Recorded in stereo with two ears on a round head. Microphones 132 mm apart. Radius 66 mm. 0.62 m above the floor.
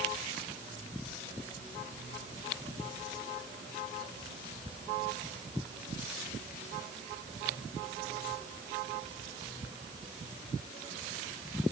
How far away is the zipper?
I don't hear a zipper.